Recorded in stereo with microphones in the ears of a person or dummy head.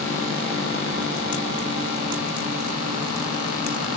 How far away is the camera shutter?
No camera shutter in this recording.